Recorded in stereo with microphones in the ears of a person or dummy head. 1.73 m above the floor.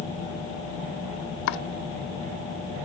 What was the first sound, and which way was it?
Chopping, 65° left (ahead or behind).